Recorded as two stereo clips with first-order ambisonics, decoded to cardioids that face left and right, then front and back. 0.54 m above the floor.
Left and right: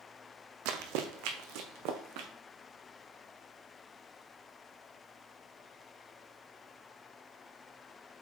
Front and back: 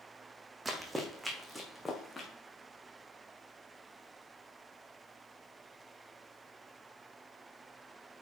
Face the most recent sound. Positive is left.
turn(degrees=-80)